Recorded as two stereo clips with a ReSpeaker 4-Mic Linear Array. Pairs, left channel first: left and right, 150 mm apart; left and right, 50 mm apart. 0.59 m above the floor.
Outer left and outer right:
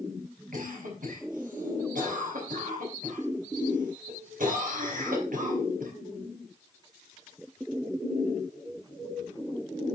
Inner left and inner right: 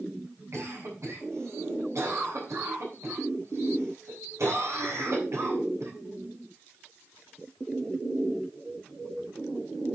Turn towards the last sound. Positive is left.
turn(degrees=-65)  # may be behind; listen again after turning